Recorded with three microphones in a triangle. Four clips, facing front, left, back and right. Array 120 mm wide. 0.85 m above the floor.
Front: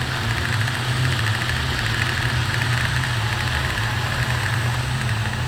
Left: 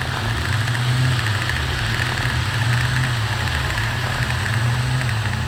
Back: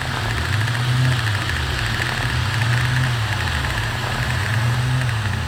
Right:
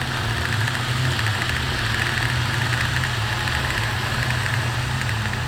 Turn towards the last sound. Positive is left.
No sound to turn to.